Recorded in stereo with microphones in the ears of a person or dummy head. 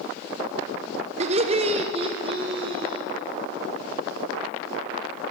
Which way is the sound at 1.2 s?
25° right (ahead or behind).